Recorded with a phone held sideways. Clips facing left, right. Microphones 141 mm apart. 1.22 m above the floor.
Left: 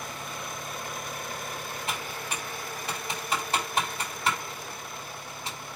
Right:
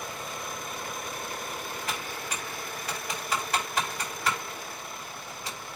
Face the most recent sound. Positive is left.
turn(degrees=25)  # may be behind; listen again after turning